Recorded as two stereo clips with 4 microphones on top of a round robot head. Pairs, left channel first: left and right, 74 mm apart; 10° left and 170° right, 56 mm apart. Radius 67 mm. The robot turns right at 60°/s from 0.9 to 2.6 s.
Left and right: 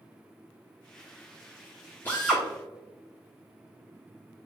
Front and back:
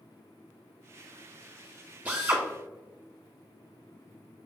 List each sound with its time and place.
2.0 s a drill: 150° left, 0.7 m; by 2.4 s 175° left, 0.7 m